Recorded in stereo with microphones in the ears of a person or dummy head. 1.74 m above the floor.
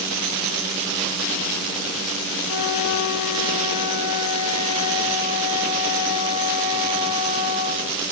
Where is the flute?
85° left, 4.5 m.